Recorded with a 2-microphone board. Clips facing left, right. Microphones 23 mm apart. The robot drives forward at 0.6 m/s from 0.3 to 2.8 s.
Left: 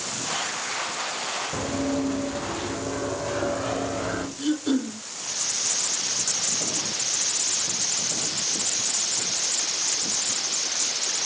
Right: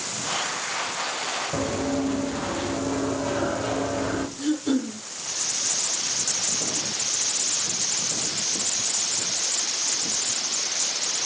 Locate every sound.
1.5 s running footsteps: 25° right (ahead or behind), 5 m; by 4.3 s 5° left (ahead or behind), 4.5 m
4.4 s throat clearing: 25° left (ahead or behind), 3.5 m